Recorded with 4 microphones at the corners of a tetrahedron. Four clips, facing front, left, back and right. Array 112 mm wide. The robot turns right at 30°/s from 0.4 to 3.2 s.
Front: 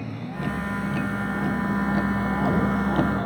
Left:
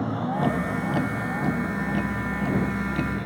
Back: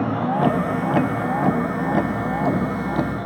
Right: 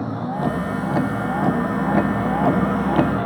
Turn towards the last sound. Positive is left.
turn(degrees=-90)